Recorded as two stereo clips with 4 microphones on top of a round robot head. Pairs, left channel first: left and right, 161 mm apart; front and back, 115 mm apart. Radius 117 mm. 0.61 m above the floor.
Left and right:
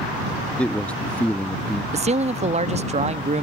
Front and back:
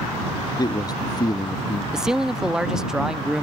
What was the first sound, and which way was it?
A man speaking, 10° left.